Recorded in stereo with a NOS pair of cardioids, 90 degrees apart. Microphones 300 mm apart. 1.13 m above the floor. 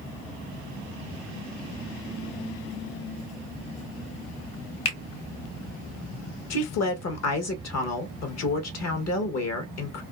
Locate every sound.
4.8 s a finger snap: 55° left, 1.2 m
6.5 s a woman speaking: 60° left, 1.0 m